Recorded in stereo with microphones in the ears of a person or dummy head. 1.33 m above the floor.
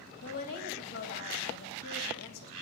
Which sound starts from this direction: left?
A woman speaking, at 0.2 s.